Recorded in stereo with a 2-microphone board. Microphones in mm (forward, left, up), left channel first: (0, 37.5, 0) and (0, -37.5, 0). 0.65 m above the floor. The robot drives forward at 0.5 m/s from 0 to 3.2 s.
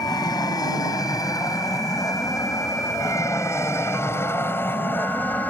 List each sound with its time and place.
0.0 s an aircraft: 60° left (ahead or behind); by 5.5 s 20° left (ahead or behind)